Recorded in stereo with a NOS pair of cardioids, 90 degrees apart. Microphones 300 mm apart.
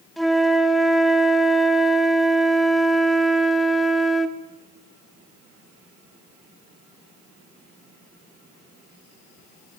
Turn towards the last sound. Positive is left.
turn(degrees=0)